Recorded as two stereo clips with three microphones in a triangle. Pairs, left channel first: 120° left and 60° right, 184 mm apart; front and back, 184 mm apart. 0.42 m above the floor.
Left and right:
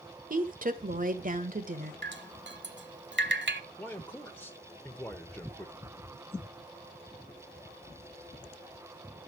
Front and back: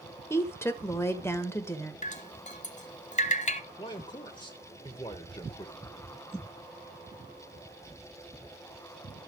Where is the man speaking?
45° left, 1.1 m.